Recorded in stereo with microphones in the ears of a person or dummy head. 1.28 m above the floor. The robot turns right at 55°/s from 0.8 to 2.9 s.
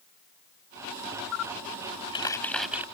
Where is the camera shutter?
75° left (ahead or behind); by 2.9 s 10° right (ahead or behind).